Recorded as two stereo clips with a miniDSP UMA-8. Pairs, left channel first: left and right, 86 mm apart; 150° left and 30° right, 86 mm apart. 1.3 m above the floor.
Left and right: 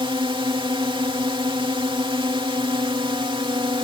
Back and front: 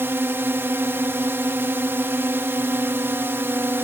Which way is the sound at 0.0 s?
90° right.